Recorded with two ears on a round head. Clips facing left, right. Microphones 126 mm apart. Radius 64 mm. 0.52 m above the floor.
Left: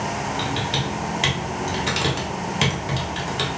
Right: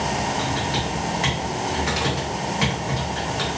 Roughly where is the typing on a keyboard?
Left.